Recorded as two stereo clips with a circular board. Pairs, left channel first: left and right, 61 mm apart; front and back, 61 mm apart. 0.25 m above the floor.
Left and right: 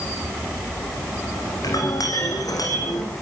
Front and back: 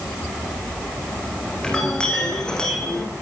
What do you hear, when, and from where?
1.6 s a clink: 75° left, 8 m